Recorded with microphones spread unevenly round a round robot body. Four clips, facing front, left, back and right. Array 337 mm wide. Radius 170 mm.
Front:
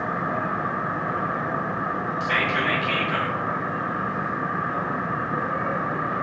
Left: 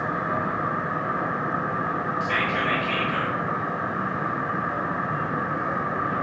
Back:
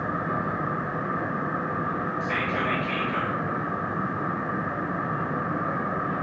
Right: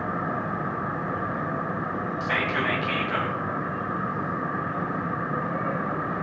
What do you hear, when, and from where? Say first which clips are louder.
2.2 s whispering: right 1 dB, front 5 dB; 75° right, 1.2 m